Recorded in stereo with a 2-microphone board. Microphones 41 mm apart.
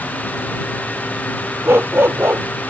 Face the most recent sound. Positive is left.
turn(degrees=-75)  # may be behind; listen again after turning